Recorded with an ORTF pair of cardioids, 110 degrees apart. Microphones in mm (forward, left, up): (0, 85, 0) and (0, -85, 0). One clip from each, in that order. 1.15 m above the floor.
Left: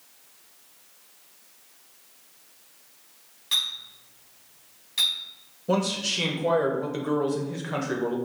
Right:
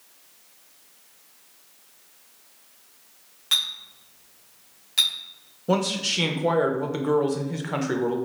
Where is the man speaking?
15° right, 0.7 m.